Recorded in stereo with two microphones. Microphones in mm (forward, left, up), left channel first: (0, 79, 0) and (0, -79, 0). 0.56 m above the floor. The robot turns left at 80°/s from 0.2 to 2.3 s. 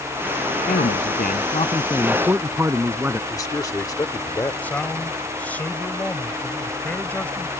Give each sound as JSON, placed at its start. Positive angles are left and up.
{"t": 0.7, "sound": "a man speaking", "azimuth_deg": 115}
{"t": 3.3, "sound": "a man speaking", "side_deg": 20}
{"t": 4.6, "sound": "a man speaking", "side_deg": 10}